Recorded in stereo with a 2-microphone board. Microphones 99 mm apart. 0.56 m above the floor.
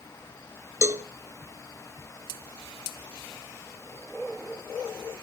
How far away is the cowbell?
About 0.8 m.